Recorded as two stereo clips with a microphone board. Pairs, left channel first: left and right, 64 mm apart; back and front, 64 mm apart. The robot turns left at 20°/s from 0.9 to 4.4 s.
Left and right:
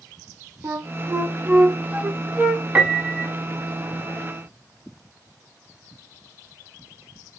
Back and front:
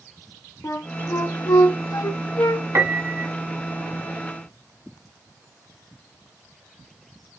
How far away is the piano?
About 1.1 m.